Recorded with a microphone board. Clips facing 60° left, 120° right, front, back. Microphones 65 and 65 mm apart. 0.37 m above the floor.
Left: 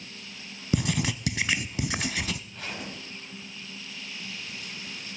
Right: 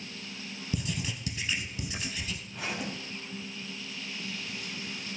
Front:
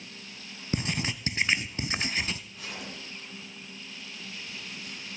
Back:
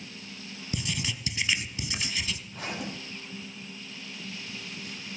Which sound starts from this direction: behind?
A zipper, at 2.5 s.